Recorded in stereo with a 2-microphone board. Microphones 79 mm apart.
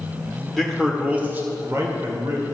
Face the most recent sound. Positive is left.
turn(degrees=-50)  # may be behind; listen again after turning